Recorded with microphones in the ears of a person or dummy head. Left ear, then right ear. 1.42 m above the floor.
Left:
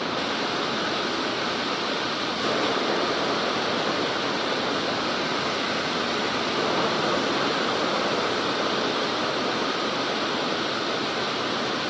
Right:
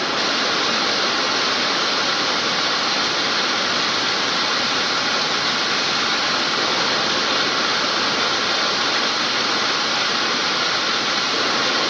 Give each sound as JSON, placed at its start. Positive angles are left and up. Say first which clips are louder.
{"t": 0.0, "sound": "running water", "louder": "right 7 dB", "side_deg": -65, "distance_m": 1.4}